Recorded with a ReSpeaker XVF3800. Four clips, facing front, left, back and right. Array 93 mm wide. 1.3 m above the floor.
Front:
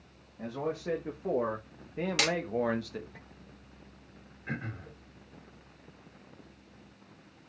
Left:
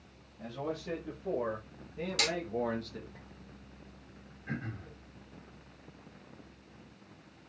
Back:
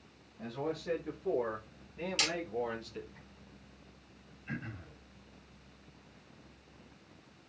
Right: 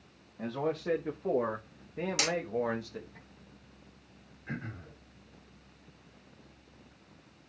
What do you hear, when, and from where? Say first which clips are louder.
0.4 s a man speaking: right 5 dB, front 3 dB; 65° right, 1.9 m; by 3.2 s straight ahead, 1.5 m
2.2 s hammering: even, front 7 dB; 15° right, 1.4 m
4.5 s throat clearing: left 1 dB, front 4 dB; straight ahead, 3 m